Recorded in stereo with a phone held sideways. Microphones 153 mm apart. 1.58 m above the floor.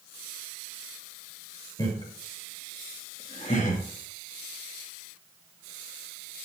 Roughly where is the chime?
No chime in this recording.